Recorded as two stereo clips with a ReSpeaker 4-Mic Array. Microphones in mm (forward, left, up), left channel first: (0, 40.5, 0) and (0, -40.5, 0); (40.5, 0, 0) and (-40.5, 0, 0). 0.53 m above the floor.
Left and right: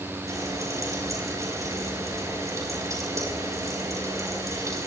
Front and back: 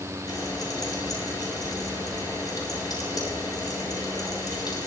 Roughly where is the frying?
Ahead right.